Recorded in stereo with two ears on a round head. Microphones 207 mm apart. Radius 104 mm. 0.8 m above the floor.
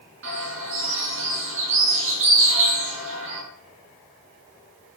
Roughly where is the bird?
Right.